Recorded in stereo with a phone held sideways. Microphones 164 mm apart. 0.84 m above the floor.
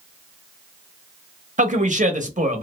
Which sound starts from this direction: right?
A man speaking, at 1.6 s.